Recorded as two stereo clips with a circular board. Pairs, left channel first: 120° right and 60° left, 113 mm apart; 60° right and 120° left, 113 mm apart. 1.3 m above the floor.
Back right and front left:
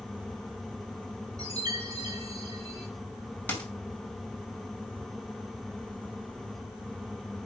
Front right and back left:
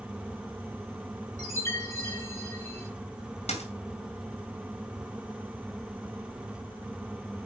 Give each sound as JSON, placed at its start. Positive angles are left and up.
{"t": 1.4, "sound": "a chime", "azimuth_deg": 5, "distance_m": 4.5}
{"t": 3.5, "sound": "a dropped coin", "azimuth_deg": -45, "distance_m": 4.0}